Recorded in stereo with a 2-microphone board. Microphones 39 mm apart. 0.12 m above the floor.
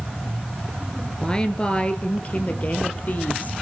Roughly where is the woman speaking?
Left.